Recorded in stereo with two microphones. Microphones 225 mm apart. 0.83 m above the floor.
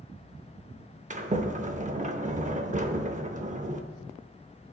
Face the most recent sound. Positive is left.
turn(degrees=-35)  # may be behind; listen again after turning